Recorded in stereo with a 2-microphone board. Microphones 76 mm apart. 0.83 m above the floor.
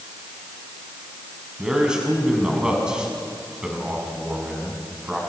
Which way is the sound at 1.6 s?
10° right (ahead or behind).